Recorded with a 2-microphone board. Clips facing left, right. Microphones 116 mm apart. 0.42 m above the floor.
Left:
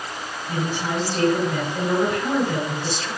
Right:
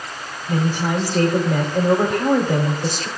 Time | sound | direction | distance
0.5 | a woman speaking | 55° right (ahead or behind) | 2 m